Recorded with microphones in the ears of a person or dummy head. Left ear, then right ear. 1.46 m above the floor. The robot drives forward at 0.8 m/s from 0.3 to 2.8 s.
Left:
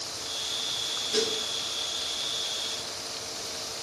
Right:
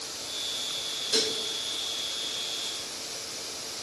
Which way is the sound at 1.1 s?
45° right (ahead or behind).